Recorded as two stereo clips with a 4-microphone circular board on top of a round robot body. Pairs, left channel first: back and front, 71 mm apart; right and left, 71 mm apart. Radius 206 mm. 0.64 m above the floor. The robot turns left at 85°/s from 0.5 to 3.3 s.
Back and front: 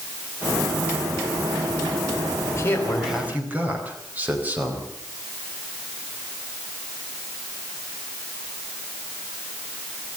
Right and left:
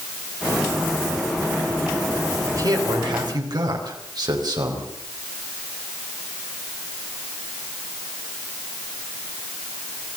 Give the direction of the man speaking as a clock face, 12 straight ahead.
7 o'clock.